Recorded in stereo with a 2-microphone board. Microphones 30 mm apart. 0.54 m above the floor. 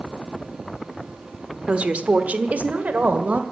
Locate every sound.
1.7 s a woman speaking: 40° right (ahead or behind), 1.3 m; by 3.4 s 65° right (ahead or behind), 2.5 m